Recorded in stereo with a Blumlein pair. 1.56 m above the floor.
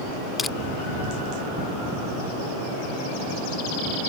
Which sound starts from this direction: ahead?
Crushing, at 0.4 s.